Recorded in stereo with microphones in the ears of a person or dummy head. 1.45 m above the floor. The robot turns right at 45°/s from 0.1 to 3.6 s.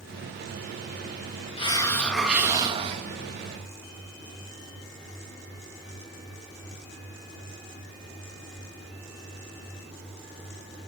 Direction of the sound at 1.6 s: 150° left.